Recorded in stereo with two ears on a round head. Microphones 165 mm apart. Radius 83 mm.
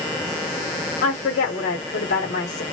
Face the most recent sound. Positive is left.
turn(degrees=45)  # may be behind; listen again after turning